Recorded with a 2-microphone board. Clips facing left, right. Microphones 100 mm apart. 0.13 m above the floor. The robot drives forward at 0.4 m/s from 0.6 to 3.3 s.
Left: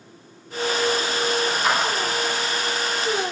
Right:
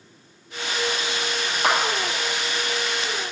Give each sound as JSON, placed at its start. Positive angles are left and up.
{"t": 1.6, "sound": "a clap", "side_deg": -60, "distance_m": 1.9}